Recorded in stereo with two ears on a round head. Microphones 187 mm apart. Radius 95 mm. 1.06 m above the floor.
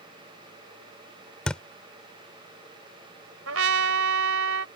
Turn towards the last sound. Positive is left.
turn(degrees=-70)  # may be behind; listen again after turning